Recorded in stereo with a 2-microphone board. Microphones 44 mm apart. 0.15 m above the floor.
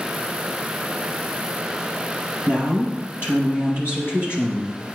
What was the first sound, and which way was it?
A woman speaking, 60° left (ahead or behind).